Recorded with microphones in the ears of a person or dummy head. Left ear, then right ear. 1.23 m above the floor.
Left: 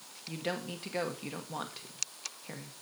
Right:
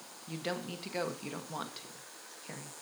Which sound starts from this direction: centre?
A woman speaking, at 0.3 s.